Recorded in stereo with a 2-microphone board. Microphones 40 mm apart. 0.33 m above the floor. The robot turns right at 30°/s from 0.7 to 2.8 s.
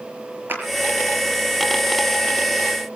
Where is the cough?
No cough in this recording.